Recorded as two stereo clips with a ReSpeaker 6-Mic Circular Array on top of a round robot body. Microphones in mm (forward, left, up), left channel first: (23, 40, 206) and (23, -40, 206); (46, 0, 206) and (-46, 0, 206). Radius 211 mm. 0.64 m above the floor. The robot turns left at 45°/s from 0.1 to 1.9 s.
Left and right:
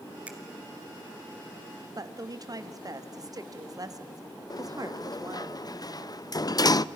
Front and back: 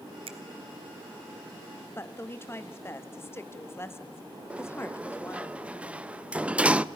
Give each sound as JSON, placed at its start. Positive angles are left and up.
{"t": 0.3, "sound": "a finger snap", "azimuth_deg": -165, "distance_m": 1.3}
{"t": 1.9, "sound": "a woman speaking", "azimuth_deg": -60, "distance_m": 1.5}
{"t": 4.5, "sound": "a sliding door", "azimuth_deg": 105, "distance_m": 0.7}